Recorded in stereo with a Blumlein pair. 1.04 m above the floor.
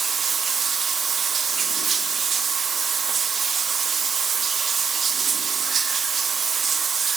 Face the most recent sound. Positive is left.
turn(degrees=-20)